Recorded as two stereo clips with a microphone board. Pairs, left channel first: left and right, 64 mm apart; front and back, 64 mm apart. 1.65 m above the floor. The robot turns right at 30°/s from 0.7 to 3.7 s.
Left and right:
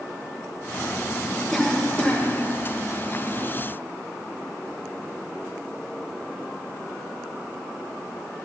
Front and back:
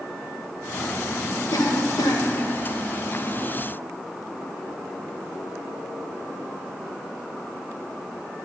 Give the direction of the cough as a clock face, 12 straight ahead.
12 o'clock.